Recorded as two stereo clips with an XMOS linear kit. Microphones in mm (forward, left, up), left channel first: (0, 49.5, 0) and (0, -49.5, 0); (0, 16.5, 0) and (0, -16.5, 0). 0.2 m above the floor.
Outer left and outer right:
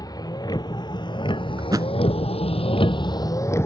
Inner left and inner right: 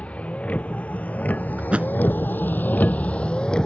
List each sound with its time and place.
0.0 s a vehicle: 40° left (ahead or behind); by 3.7 s 25° left (ahead or behind)
1.6 s a thud: 40° right (ahead or behind)